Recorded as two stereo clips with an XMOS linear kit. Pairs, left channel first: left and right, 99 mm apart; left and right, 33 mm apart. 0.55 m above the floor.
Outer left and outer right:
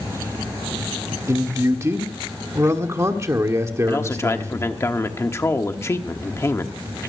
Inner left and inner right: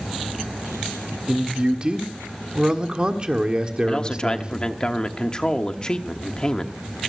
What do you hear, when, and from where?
1.3 s a man speaking: 30° right (ahead or behind), 1.4 m
3.9 s a man speaking: 30° left (ahead or behind), 1.1 m